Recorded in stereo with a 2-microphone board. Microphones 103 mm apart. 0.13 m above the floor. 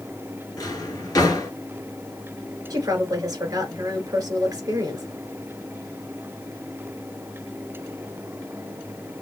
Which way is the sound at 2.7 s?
35° right (ahead or behind).